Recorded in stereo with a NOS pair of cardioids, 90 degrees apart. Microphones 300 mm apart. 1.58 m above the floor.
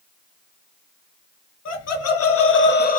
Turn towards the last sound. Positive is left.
turn(degrees=30)